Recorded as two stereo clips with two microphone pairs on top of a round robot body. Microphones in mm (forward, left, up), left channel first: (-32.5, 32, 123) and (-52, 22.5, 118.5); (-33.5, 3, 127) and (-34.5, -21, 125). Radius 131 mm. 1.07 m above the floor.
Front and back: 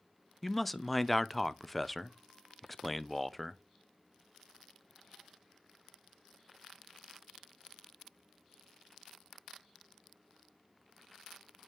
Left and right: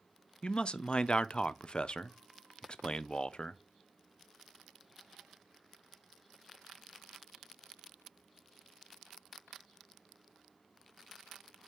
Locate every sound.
0.4 s a man speaking: 120° left, 0.7 m